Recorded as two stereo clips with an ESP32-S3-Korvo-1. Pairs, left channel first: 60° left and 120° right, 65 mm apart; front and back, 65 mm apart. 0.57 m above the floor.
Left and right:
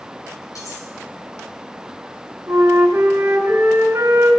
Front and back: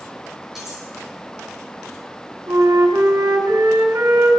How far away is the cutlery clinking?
About 6.5 m.